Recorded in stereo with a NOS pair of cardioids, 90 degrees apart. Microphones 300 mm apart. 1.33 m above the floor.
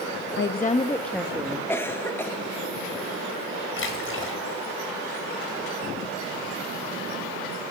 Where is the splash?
45° left, 5 m.